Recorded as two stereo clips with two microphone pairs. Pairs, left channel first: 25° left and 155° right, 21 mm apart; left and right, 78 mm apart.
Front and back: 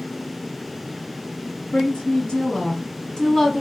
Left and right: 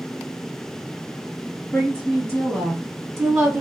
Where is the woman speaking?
20° left, 1.9 m; by 3.6 s 25° right, 1.1 m.